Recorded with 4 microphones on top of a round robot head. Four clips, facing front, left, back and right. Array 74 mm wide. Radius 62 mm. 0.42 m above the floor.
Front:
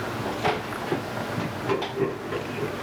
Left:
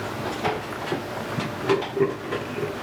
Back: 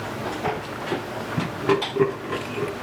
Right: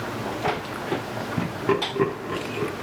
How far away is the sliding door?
I don't hear a sliding door.